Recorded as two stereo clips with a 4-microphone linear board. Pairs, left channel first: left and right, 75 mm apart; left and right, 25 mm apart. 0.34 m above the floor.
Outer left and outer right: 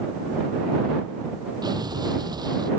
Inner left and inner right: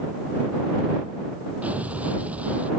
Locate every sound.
1.6 s an explosion: 60° right (ahead or behind)